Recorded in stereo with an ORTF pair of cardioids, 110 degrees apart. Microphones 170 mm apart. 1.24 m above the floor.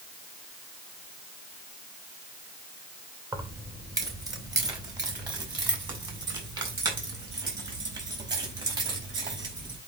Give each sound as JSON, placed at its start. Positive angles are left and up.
{"t": 3.3, "sound": "keys jangling", "azimuth_deg": -20, "distance_m": 2.0}